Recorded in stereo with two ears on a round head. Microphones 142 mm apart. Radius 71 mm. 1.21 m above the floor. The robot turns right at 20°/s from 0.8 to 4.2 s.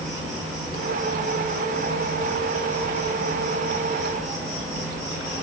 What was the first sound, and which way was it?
An insect, 135° right.